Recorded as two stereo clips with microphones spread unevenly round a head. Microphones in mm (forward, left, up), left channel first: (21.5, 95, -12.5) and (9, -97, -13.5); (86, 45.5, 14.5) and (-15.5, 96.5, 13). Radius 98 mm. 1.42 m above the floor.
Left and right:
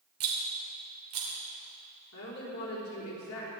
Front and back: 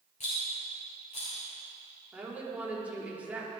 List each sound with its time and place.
0.2 s a rattle: 85° right, 3 m
2.1 s a woman speaking: 75° left, 4.5 m